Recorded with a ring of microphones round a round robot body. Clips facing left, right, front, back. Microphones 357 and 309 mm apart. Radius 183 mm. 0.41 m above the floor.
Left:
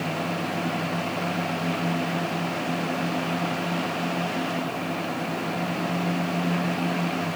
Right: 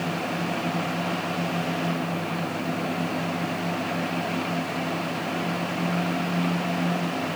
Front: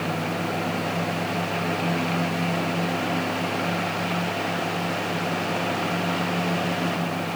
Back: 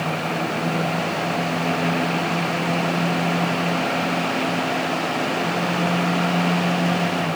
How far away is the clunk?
I don't hear a clunk.